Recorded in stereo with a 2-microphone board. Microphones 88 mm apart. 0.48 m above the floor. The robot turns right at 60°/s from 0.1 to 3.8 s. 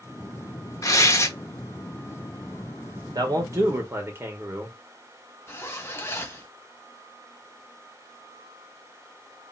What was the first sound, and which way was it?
Tearing paper, 100° left.